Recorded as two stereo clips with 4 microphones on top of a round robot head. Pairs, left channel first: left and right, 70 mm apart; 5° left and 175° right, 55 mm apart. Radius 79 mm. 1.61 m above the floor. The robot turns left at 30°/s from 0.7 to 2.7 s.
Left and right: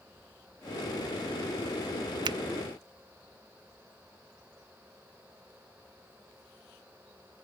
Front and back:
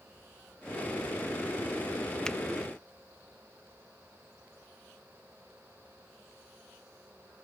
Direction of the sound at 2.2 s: 75° right.